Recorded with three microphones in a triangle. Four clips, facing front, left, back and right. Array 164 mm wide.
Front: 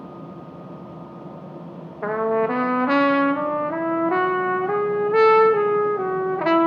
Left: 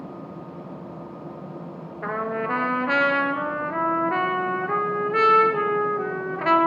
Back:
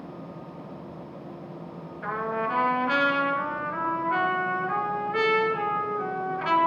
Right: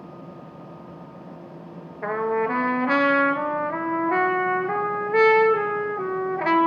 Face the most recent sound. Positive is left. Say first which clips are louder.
# right 3 dB, front 8 dB
turn(degrees=-5)